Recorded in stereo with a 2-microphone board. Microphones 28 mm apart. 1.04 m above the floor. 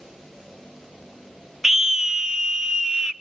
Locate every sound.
1.6 s a scream: 10° right (ahead or behind), 0.6 m; by 3.1 s 25° right (ahead or behind), 1.4 m